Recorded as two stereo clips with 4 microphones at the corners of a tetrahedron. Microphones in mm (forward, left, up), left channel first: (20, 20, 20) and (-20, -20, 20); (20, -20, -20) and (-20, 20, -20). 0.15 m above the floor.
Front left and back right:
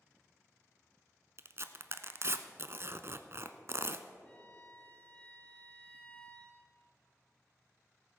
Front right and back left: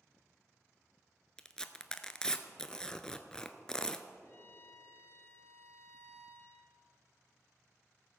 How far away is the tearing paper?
About 0.6 m.